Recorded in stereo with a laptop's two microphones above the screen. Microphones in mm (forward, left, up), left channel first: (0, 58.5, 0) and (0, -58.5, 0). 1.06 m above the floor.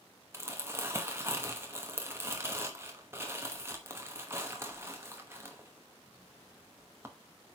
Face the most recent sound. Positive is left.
turn(degrees=-20)  # may be behind; listen again after turning